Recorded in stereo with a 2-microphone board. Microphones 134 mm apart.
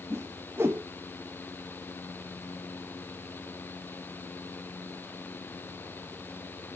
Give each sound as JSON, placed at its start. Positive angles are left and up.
{"t": 0.1, "sound": "a whoosh", "side_deg": -20, "distance_m": 0.5}